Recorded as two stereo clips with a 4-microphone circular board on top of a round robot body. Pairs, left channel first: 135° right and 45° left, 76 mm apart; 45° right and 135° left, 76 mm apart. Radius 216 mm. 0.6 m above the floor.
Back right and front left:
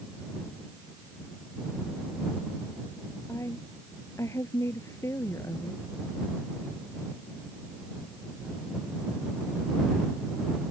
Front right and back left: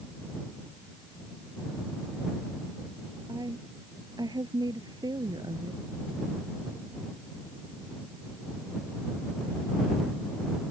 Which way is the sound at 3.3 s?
170° left.